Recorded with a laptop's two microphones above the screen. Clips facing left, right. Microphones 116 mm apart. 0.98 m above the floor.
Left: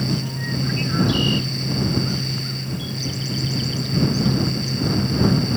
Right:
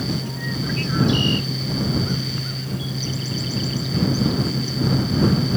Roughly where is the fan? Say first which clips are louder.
Left 1 dB; centre.